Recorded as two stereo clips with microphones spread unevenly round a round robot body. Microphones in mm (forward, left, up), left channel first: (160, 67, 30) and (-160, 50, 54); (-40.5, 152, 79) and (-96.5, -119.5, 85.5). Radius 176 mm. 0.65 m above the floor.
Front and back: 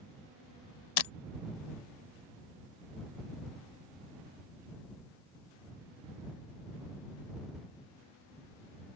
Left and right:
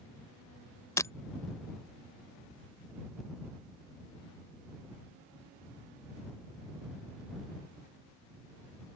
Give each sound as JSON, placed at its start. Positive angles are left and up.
{"t": 1.0, "sound": "breaking glass", "azimuth_deg": -5}